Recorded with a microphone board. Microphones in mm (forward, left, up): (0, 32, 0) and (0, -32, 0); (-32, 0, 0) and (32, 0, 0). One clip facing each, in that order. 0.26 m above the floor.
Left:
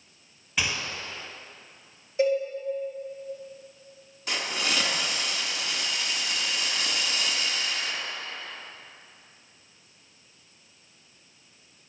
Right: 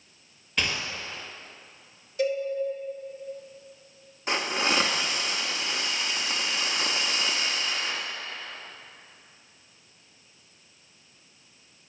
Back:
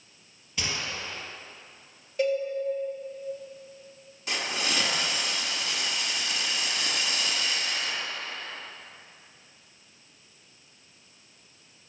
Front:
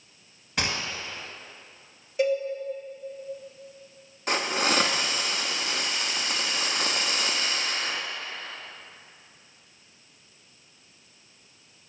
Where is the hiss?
35° right, 0.9 m.